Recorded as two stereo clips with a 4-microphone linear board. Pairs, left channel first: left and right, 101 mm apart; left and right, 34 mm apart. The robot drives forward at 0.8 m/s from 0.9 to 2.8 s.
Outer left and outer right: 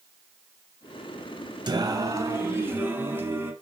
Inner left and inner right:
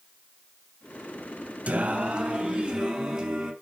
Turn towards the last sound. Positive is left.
turn(degrees=-20)  # may be behind; listen again after turning